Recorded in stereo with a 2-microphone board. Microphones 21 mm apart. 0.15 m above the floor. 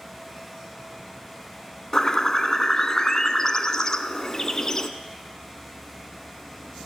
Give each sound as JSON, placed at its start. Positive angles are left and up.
{"t": 1.9, "sound": "a bird", "side_deg": 30, "distance_m": 0.5}